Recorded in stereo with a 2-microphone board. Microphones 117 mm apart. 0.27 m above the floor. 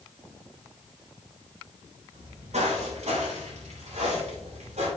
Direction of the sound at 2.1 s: 70° right (ahead or behind).